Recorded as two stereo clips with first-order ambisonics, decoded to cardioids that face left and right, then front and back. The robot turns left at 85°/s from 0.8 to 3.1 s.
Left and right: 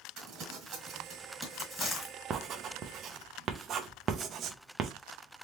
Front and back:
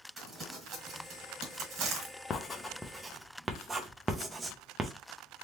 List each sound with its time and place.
0.2 s crumpling: 115° right, 1.6 m; by 2.1 s 130° left, 1.6 m
2.3 s writing: 45° right, 0.5 m; by 4.9 s 110° right, 0.5 m